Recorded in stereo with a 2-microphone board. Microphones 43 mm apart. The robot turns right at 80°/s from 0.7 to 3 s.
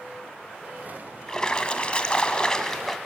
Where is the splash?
15° left (ahead or behind), 1.3 m; by 3.0 s 5° left (ahead or behind), 1.3 m.